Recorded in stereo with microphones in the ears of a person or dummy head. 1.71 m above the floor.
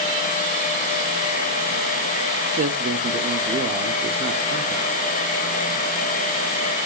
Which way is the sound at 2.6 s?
40° right (ahead or behind).